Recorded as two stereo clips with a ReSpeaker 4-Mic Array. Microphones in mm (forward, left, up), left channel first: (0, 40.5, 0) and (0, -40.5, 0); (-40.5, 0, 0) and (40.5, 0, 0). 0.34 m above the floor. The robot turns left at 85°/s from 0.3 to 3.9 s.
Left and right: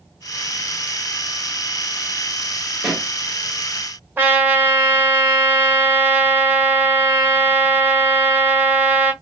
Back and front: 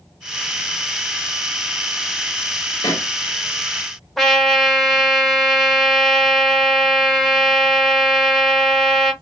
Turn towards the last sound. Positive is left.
turn(degrees=-95)